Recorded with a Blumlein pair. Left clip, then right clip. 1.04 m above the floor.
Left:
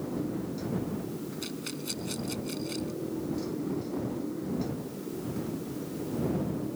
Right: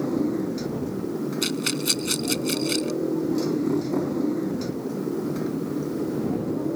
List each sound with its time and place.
0.0 s a motorcycle: 30° right
1.4 s a rattle: 55° right